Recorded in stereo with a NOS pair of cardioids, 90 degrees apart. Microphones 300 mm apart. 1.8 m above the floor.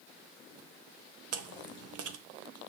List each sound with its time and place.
1.3 s chewing: 60° right, 0.9 m